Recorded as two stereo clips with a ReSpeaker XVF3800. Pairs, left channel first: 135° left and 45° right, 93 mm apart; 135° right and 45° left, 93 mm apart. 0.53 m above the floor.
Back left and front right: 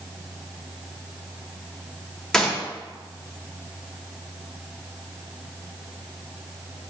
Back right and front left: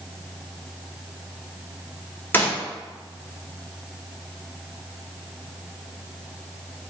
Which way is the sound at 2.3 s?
150° right.